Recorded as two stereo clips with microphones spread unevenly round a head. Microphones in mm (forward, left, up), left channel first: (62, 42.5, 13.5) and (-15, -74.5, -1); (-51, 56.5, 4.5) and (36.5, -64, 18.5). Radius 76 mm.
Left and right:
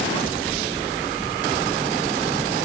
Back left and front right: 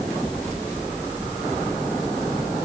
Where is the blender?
No blender in this recording.